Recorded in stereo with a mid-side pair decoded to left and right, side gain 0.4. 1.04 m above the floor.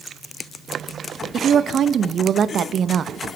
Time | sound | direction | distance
1.3 | a woman speaking | 60° right | 0.8 m